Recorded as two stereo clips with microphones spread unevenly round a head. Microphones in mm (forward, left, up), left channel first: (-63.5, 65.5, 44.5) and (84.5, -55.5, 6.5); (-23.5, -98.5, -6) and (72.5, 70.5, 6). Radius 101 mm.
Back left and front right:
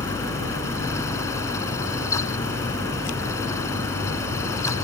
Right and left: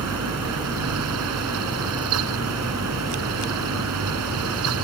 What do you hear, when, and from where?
0.0 s a fan: 65° left